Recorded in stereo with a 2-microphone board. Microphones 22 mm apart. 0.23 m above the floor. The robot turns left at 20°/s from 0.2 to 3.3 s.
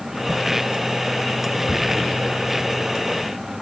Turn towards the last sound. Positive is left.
turn(degrees=20)  # may be behind; listen again after turning